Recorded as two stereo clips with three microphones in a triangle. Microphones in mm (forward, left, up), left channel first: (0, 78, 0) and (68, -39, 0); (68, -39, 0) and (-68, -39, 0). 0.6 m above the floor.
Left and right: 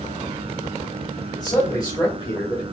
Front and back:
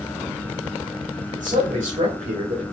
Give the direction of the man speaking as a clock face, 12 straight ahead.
6 o'clock.